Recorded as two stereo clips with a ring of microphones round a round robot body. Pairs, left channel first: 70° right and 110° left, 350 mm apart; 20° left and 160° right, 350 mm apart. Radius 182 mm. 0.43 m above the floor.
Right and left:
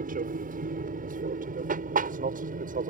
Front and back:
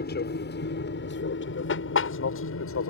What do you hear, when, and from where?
0.0 s an aircraft: 65° left; by 2.9 s 55° left